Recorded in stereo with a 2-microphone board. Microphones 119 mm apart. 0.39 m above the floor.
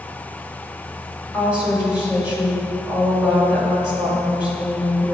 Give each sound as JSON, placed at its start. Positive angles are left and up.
{"t": 1.3, "sound": "a woman speaking", "side_deg": -10, "distance_m": 1.5}